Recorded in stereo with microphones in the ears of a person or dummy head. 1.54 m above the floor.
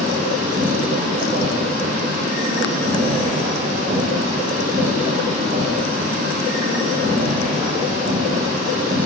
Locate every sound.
0.0 s a machine running: 50° right (ahead or behind), 7 m